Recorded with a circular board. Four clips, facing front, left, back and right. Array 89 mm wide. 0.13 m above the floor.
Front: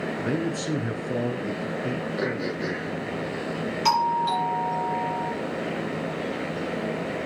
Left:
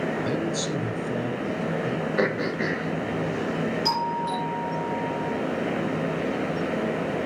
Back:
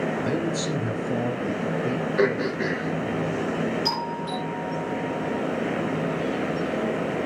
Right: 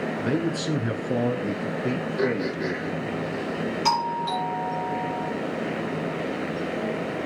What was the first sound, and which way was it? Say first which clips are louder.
A man speaking: right 1 dB, back 1 dB; 60° right.